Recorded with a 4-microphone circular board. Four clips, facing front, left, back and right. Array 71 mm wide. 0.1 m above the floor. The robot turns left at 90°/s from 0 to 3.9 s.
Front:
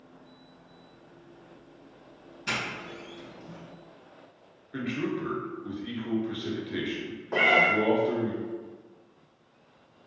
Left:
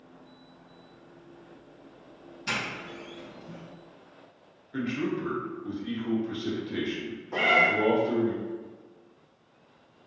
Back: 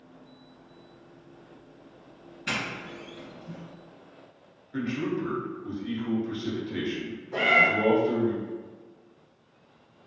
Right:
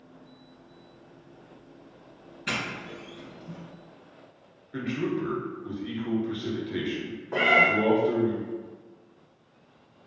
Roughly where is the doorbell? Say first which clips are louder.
Right 1 dB, even; behind right.